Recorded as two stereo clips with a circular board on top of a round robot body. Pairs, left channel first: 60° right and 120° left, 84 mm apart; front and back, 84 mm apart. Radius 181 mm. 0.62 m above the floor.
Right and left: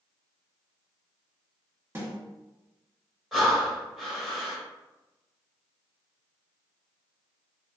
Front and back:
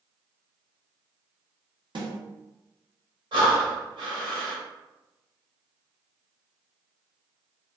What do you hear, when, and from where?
1.9 s a snare drum: straight behind, 1.8 m
3.3 s breathing: 150° right, 0.7 m